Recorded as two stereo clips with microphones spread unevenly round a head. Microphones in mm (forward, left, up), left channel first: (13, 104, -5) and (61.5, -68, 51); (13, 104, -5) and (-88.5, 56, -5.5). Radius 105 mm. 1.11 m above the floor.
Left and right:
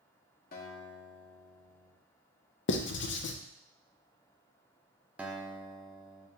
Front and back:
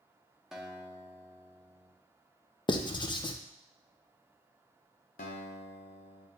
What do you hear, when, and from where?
0.5 s a guitar: 120° left, 1.1 m
2.7 s writing: 75° left, 0.5 m
5.2 s a guitar: 5° left, 0.7 m